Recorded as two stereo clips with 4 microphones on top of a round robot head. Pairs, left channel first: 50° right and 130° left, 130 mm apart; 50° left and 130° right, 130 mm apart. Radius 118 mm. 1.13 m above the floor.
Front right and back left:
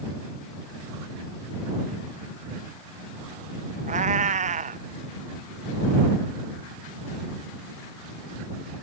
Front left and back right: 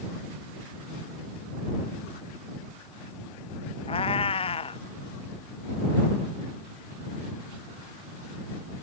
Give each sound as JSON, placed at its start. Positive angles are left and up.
{"t": 3.9, "sound": "a cat meowing", "azimuth_deg": 100}